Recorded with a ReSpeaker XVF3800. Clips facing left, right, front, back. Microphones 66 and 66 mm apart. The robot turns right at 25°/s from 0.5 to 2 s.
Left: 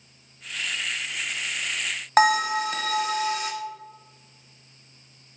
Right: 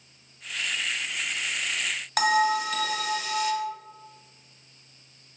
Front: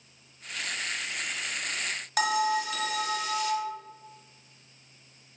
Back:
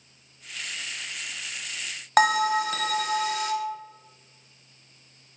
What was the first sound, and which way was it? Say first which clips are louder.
A bell: left 3 dB, back 6 dB; 145° left.